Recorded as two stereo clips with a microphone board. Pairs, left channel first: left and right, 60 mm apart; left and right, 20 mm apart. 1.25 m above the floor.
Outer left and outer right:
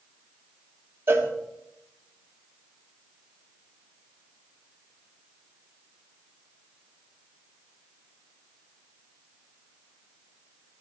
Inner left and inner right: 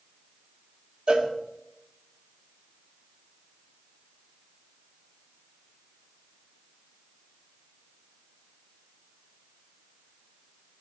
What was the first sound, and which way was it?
A cowbell, 40° right (ahead or behind).